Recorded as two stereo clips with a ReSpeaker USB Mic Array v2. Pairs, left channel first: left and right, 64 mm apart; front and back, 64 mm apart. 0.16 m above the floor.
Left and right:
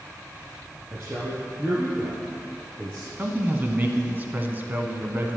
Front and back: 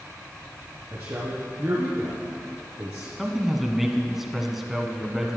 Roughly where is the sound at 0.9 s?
Behind right.